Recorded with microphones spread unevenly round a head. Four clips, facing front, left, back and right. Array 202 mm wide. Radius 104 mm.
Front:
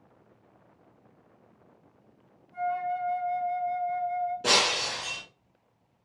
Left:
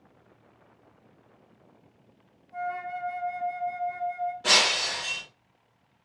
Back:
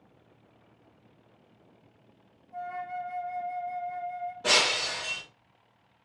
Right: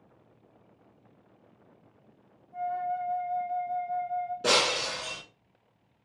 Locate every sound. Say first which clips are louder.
2.5 s a flute: right 2 dB, front 6 dB; 105° left, 1.5 m
4.4 s breaking glass: right 2 dB, front 1 dB; 55° right, 3 m